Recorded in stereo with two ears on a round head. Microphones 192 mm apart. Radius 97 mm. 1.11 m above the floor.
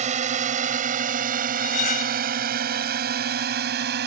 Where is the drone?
35° right (ahead or behind); by 4.1 s 50° right (ahead or behind).